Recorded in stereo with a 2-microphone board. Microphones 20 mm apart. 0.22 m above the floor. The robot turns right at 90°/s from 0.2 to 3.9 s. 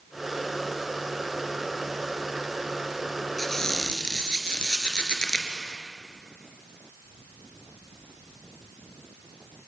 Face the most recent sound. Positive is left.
turn(degrees=55)